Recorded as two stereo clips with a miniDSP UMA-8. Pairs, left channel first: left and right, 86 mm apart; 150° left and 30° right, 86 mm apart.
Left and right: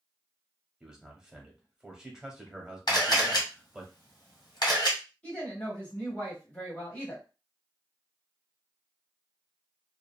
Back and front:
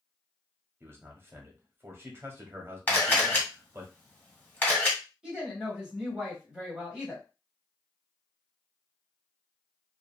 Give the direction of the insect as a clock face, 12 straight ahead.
I don't hear an insect.